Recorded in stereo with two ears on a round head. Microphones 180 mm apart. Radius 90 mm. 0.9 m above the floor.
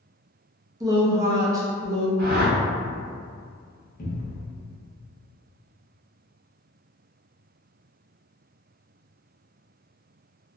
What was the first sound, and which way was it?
A woman speaking, 15° right (ahead or behind).